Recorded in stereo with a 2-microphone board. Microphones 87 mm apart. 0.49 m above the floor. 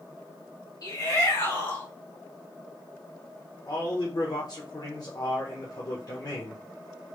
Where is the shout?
45° left (ahead or behind), 3 m; by 1.9 s 25° left (ahead or behind), 2 m.